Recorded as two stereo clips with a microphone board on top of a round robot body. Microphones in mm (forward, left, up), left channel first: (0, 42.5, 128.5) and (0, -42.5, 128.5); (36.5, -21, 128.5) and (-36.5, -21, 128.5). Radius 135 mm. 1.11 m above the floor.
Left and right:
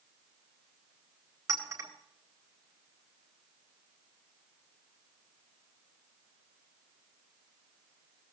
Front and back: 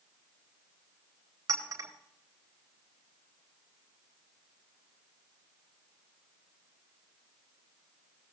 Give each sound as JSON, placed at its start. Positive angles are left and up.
{"t": 1.5, "sound": "a clink", "azimuth_deg": -145, "distance_m": 4.0}